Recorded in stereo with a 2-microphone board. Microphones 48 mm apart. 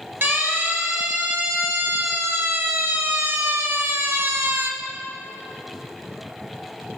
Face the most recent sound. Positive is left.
turn(degrees=-65)  # may be behind; listen again after turning